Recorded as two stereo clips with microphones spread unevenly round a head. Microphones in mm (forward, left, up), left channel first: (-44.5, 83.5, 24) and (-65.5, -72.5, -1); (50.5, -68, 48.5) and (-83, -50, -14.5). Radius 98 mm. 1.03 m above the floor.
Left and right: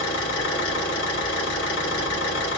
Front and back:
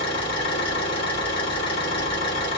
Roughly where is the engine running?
Ahead left.